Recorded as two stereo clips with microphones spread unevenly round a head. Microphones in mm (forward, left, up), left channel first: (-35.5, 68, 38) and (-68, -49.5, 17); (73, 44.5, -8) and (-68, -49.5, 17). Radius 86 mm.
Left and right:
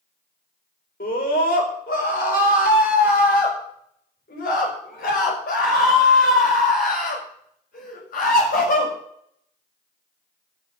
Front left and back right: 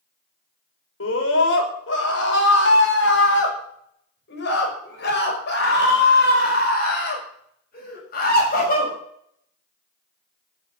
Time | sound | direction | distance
1.0 | a scream | 45° left | 5 m